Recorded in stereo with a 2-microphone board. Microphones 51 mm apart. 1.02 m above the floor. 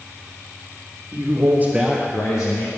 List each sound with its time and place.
1.1 s a man speaking: 55° right (ahead or behind), 1.2 m; by 2.7 s 70° left (ahead or behind), 1.1 m